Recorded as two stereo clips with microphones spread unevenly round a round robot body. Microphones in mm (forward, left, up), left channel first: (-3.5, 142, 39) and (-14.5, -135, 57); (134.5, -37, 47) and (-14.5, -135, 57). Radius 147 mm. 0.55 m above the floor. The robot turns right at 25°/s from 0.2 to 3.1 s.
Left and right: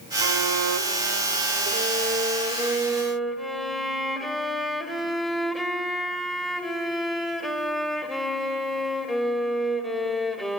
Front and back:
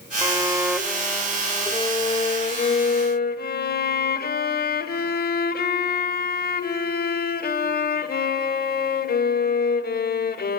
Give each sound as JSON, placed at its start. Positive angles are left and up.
{"t": 0.2, "sound": "a violin", "azimuth_deg": -75, "distance_m": 1.1}